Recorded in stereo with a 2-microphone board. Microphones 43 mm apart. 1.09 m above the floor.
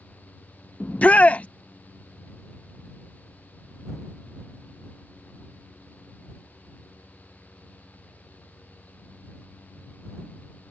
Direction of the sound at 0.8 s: 30° left (ahead or behind).